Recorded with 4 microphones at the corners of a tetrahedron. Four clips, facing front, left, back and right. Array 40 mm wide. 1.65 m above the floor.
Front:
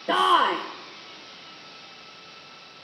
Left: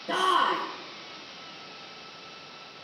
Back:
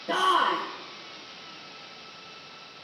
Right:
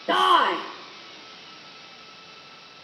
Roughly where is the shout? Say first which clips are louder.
Right 5 dB, front 3 dB; ahead right.